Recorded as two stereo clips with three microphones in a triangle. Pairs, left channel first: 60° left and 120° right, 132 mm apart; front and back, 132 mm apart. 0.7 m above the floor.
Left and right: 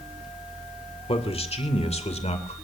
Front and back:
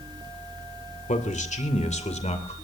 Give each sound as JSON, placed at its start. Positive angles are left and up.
{"t": 1.1, "sound": "a man speaking", "azimuth_deg": 20, "distance_m": 2.0}